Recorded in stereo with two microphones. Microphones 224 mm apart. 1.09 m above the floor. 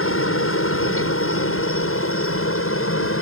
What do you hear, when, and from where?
0.0 s a helicopter: 70° left (ahead or behind)